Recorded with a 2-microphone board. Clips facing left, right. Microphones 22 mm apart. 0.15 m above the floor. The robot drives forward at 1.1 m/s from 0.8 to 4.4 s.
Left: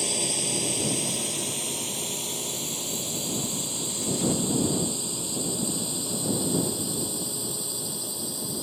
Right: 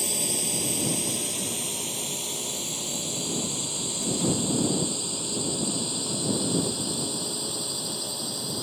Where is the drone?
5° left (ahead or behind); by 8.6 s 20° right (ahead or behind).